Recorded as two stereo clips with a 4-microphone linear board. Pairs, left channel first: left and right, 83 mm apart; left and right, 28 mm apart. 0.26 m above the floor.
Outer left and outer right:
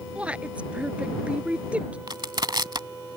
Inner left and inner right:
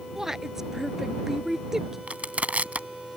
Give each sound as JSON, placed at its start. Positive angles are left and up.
{"t": 0.1, "sound": "a woman speaking", "side_deg": -15}
{"t": 2.1, "sound": "crushing", "side_deg": -60}